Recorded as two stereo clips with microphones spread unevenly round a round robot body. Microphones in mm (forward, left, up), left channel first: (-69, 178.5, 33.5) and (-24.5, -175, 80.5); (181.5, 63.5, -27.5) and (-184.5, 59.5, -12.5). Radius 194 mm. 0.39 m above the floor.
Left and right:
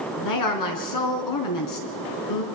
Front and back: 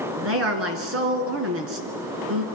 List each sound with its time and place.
0.2 s a woman speaking: 125° left, 4 m